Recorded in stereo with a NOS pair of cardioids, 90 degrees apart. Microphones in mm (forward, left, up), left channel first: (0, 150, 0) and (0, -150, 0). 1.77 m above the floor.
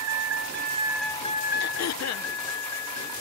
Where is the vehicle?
65° right; by 3.2 s 65° left.